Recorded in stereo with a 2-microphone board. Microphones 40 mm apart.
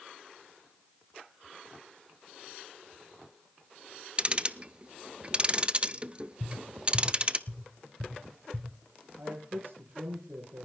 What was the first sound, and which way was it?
Ticking, 30° right (ahead or behind).